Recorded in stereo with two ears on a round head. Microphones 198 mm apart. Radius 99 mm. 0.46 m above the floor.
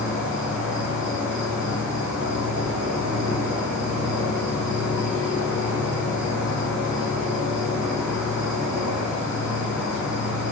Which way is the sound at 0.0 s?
5° right (ahead or behind).